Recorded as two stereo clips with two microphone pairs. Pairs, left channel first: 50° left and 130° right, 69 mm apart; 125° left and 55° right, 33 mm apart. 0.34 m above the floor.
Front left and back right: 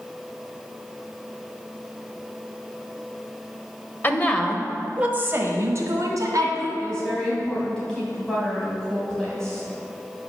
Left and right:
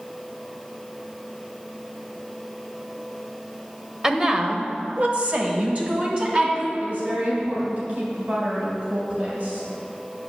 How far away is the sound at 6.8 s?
About 2.5 m.